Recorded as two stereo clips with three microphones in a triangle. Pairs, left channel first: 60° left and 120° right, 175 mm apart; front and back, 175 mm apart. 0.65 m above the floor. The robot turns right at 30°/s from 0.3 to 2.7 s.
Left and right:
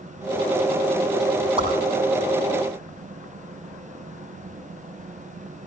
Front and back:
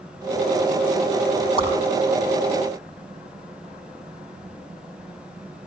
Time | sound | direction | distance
1.6 | a whoosh | 60° right | 5.5 m